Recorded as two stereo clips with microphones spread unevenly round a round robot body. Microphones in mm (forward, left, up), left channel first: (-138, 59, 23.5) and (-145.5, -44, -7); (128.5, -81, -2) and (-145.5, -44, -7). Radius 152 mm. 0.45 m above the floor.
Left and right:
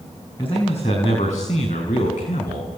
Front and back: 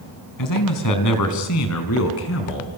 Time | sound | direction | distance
0.4 | a man speaking | 15° left | 5 m